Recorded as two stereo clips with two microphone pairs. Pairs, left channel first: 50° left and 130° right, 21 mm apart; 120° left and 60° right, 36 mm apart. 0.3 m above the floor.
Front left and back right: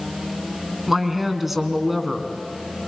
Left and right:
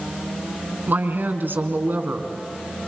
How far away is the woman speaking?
About 3.5 m.